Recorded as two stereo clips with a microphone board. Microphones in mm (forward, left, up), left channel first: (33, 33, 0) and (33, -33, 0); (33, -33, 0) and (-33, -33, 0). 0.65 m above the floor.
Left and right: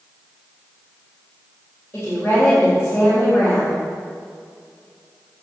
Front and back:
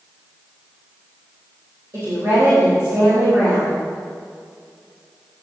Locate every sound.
1.9 s a woman speaking: 150° left, 3.5 m